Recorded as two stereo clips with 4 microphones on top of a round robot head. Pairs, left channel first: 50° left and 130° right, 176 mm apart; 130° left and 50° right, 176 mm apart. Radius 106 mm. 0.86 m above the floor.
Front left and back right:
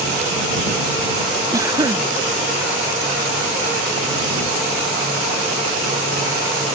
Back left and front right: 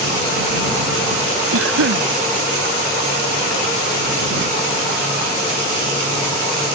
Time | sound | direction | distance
1.5 | a cough | 55° right | ?